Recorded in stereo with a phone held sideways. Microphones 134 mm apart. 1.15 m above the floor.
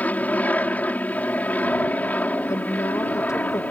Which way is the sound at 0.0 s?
10° left (ahead or behind).